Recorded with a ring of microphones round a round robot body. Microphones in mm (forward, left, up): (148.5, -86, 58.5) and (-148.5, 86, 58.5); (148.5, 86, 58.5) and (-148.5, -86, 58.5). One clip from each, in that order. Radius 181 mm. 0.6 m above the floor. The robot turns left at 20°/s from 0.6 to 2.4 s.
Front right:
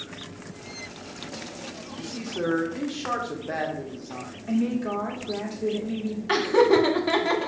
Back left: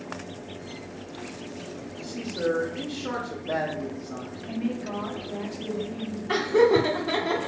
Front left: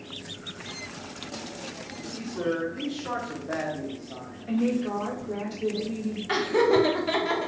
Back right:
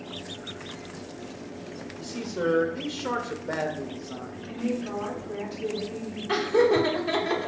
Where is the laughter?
40° right, 0.9 m.